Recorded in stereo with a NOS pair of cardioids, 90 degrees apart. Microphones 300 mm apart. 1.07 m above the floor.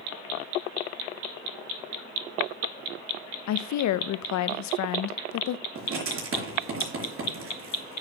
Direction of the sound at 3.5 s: 70° left.